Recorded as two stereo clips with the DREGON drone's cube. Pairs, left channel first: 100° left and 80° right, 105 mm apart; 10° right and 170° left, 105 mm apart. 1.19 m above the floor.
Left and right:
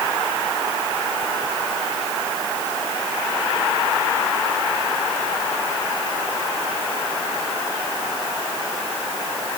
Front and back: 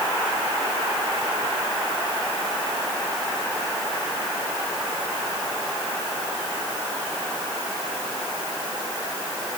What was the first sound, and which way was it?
Only background noise.